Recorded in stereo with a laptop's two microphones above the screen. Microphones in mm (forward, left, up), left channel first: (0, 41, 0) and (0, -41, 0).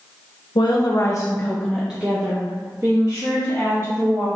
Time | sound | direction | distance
0.6 | a woman speaking | 65° left (ahead or behind) | 0.7 m